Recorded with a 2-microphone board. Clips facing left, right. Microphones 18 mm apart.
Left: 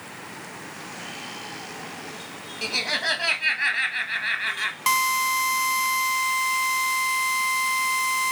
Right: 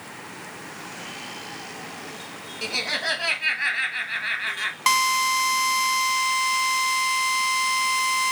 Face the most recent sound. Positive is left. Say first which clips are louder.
# right 2 dB
turn(degrees=-10)  # may be behind; listen again after turning